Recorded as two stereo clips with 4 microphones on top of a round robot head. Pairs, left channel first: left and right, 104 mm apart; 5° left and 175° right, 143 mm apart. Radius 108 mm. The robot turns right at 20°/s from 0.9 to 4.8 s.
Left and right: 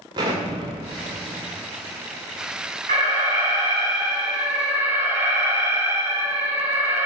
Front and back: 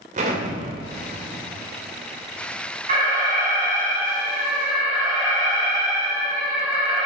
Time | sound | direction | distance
0.1 | an explosion | 140° right | 2.5 m
2.9 | an alarm | 120° right | 5.5 m